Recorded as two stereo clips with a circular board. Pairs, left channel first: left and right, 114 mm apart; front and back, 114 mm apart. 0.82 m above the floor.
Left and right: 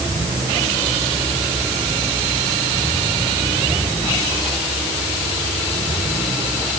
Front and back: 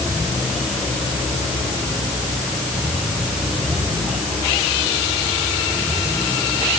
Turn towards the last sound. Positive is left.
No sound to turn to.